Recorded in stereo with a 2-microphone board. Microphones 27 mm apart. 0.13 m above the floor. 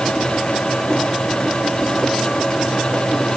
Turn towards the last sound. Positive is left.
No sound to turn to.